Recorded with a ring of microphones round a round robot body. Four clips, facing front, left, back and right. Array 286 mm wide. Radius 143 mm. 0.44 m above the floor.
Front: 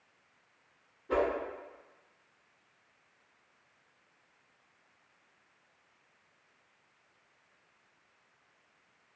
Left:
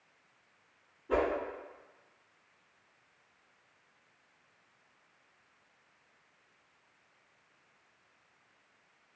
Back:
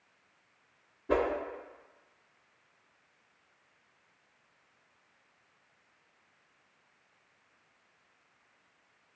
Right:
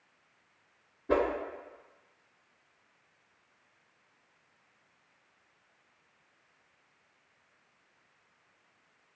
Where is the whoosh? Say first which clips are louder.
Right 2 dB, back 1 dB; 130° right, 0.6 m.